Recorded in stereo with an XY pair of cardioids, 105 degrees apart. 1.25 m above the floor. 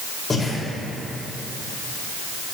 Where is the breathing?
25° left, 2 m.